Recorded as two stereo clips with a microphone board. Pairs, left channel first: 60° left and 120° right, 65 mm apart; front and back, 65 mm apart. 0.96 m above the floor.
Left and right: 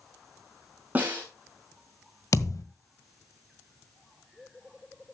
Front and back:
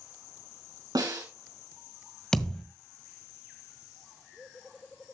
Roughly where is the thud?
Left.